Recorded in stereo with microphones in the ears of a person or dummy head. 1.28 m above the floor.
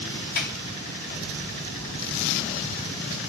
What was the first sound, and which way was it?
A sliding door, 50° left (ahead or behind).